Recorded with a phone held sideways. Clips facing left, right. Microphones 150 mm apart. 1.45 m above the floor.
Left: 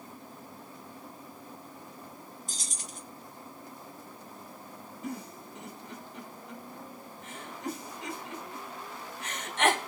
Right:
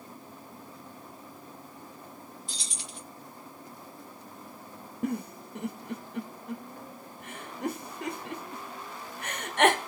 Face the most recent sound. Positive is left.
turn(degrees=-70)  # may be behind; listen again after turning